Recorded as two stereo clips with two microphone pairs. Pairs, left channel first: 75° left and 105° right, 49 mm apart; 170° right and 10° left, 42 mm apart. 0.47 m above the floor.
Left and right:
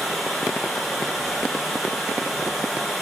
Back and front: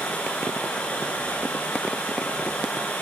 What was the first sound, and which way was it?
Running water, 165° left.